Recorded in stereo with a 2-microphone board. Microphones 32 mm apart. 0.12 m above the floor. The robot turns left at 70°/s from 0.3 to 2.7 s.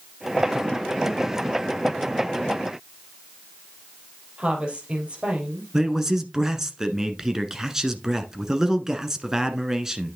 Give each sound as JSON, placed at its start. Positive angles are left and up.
{"t": 4.4, "sound": "a woman speaking", "side_deg": -40, "distance_m": 3.5}
{"t": 5.7, "sound": "a man speaking", "side_deg": -15, "distance_m": 1.1}